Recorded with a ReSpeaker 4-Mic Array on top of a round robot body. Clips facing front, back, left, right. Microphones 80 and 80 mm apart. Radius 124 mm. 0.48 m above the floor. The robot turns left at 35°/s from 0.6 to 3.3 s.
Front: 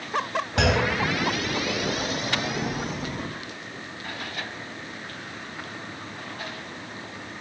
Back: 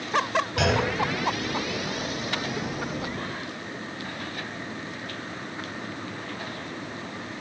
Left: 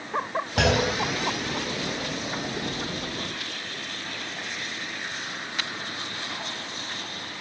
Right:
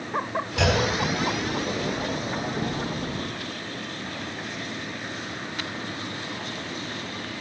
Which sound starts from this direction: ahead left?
A clunk, at 0.6 s.